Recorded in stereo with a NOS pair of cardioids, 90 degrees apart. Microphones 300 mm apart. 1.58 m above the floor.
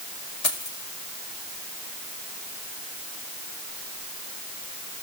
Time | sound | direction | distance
0.4 | keys jangling | 60° left | 6 m